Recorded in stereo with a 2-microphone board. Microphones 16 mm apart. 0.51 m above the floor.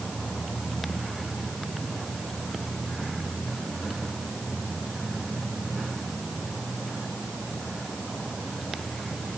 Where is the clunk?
No clunk in this recording.